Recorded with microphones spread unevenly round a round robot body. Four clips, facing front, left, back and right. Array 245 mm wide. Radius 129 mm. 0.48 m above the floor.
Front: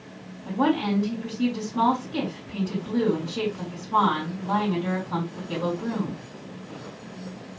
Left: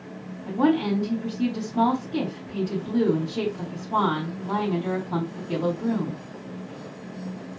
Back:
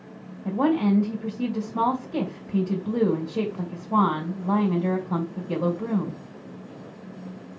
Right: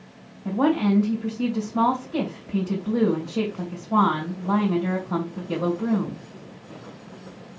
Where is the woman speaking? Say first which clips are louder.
Right 1 dB, back 2 dB; 140° right, 2.5 m.